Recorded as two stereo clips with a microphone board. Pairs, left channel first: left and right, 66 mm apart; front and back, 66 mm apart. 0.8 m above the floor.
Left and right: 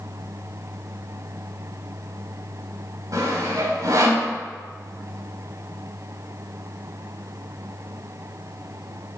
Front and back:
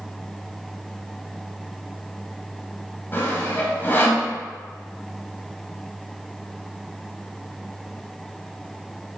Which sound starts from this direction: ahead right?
Sawing, at 3.1 s.